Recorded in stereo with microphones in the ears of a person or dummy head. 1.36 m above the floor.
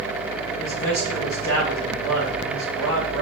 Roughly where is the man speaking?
Centre.